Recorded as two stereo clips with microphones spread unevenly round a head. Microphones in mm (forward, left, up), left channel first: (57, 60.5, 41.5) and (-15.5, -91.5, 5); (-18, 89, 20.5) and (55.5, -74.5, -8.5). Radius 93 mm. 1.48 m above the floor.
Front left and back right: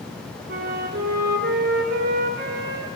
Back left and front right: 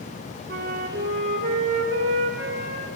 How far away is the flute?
About 1.4 m.